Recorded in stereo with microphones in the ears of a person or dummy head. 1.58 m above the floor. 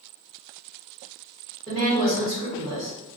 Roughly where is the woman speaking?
Right.